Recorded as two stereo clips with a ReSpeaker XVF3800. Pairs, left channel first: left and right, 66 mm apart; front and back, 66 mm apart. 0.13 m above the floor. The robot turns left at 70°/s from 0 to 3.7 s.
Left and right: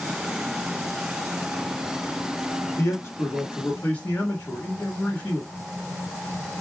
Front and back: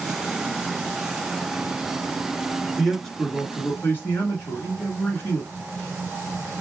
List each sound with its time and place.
2.8 s a man speaking: 100° left, 1.5 m; by 5.5 s 35° left, 1.5 m